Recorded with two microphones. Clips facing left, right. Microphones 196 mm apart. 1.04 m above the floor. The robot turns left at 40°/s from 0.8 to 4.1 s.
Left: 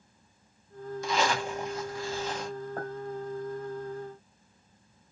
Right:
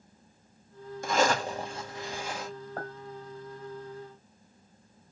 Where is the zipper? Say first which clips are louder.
Right 3 dB; 120° right, 1.2 m; by 2.5 s 175° right, 1.2 m.